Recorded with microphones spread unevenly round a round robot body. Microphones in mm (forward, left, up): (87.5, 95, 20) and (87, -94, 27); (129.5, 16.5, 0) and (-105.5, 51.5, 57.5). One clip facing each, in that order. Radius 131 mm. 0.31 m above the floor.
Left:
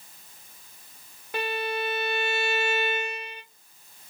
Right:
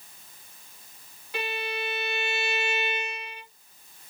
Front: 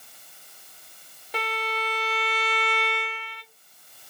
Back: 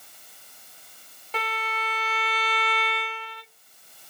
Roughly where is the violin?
Ahead left.